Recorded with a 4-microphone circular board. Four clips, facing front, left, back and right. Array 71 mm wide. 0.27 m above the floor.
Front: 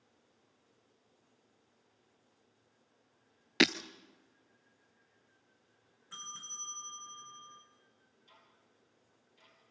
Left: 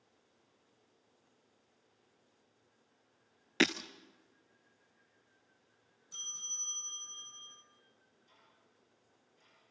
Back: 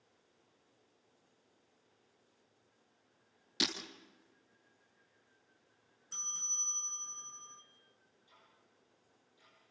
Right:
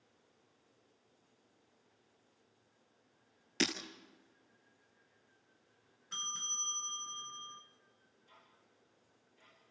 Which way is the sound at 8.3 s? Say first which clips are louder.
Right 4 dB, front 2 dB; 15° right.